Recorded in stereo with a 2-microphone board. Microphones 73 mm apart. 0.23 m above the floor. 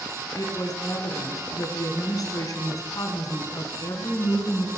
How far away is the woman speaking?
About 2 m.